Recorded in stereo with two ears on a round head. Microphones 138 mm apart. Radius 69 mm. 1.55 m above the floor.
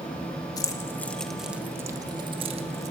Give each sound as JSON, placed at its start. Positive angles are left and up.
{"t": 0.6, "sound": "keys jangling", "side_deg": 25, "distance_m": 1.3}